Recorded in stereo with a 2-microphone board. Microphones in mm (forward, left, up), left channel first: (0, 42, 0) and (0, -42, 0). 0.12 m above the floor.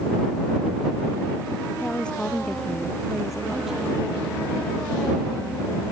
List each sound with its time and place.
1.8 s a woman speaking: 15° left (ahead or behind); by 5.9 s 15° right (ahead or behind)